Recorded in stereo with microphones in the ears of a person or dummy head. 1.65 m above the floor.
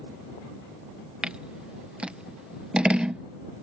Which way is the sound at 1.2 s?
5° right (ahead or behind).